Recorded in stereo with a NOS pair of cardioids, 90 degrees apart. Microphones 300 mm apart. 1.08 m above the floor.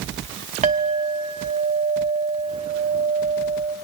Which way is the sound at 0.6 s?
25° right.